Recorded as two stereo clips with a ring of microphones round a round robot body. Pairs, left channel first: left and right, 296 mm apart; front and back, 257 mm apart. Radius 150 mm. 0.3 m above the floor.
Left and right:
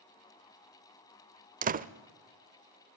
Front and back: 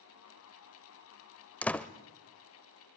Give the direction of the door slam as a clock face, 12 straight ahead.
3 o'clock.